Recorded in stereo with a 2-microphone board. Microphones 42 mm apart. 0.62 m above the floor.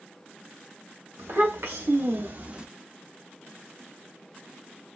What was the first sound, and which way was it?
A child speaking, 80° right.